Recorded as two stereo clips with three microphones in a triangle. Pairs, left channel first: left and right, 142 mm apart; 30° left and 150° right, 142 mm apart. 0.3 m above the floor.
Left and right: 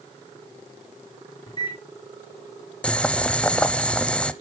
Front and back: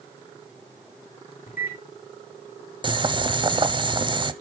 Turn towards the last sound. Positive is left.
turn(degrees=170)